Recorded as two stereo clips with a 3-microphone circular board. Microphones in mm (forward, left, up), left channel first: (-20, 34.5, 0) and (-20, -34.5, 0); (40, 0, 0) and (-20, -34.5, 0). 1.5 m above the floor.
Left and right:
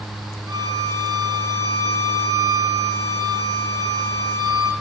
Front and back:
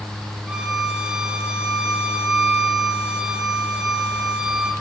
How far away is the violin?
About 2.5 m.